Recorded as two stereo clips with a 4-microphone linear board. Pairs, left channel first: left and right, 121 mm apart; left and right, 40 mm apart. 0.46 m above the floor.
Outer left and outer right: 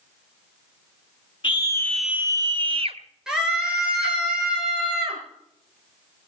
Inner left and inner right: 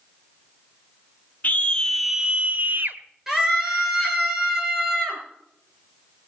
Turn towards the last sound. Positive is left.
turn(degrees=-5)  # may be behind; listen again after turning